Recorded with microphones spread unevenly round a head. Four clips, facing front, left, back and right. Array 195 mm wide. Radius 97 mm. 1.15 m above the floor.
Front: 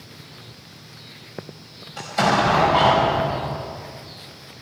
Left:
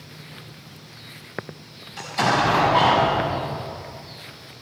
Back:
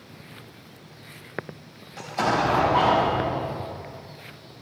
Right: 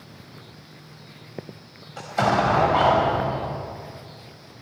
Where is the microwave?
I don't hear a microwave.